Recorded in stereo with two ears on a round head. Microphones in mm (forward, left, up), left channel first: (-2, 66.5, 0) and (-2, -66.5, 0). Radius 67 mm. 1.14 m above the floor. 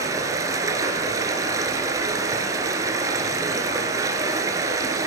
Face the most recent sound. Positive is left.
turn(degrees=-25)  # may be behind; listen again after turning